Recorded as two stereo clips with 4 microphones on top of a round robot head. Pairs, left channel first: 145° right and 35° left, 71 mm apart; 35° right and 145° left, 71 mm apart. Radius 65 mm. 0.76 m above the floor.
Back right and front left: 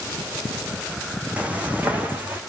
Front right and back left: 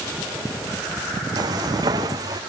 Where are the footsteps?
110° left, 3 m; by 2.4 s 105° left, 4 m.